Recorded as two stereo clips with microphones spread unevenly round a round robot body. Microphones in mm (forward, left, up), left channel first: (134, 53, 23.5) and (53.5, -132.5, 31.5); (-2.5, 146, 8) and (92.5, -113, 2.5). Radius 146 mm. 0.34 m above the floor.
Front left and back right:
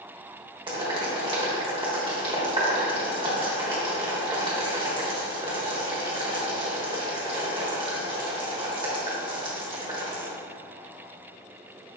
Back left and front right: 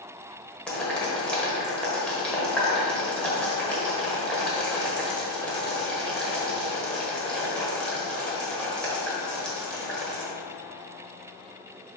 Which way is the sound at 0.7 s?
165° right.